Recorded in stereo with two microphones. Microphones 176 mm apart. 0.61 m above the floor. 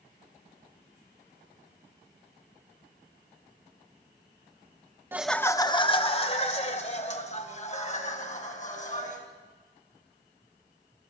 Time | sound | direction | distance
5.1 | laughter | 10° right (ahead or behind) | 0.6 m